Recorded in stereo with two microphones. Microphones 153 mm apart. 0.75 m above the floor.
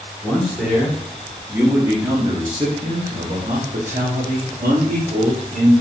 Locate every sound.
0.2 s a man speaking: centre (ahead or behind), 1.9 m; by 5.7 s 55° right (ahead or behind), 1.7 m